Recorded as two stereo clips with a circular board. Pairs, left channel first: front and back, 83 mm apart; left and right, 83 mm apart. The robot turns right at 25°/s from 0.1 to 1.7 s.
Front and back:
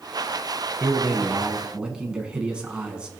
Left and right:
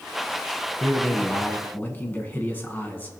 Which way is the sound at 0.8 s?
95° left.